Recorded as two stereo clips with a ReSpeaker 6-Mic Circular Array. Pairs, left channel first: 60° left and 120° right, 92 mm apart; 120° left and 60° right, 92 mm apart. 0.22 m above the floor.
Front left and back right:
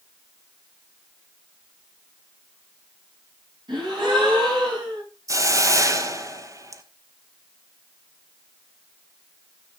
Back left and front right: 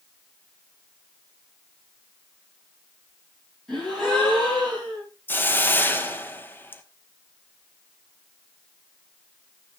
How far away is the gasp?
About 9 m.